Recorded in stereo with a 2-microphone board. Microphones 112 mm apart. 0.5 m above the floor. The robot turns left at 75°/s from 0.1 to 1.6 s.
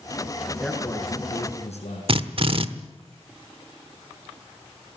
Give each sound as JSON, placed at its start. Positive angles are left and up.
{"t": 0.6, "sound": "a man speaking", "azimuth_deg": 180, "distance_m": 6.0}
{"t": 2.1, "sound": "a drill", "side_deg": -55, "distance_m": 1.1}